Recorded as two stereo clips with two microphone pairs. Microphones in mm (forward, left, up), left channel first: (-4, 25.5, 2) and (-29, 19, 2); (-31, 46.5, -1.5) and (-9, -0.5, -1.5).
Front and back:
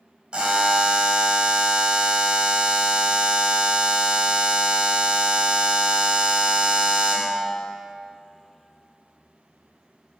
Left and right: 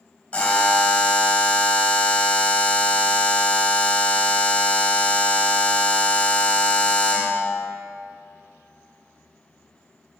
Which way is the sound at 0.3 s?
170° left.